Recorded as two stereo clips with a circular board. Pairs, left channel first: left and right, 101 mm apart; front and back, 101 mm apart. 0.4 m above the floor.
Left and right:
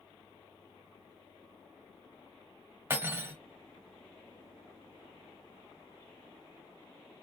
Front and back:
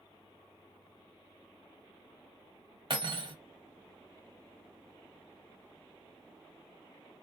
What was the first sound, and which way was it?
Cutlery clinking, 155° right.